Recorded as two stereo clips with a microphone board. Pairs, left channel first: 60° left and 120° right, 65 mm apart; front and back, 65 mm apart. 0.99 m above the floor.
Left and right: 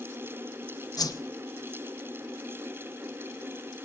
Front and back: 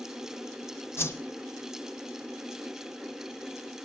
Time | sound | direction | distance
1.0 | a whoosh | 50° left | 0.9 m